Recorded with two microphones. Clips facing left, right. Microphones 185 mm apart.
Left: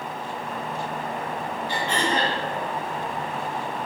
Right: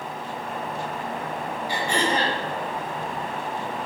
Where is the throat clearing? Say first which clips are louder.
Right 1 dB; 10° right (ahead or behind), 1.5 m.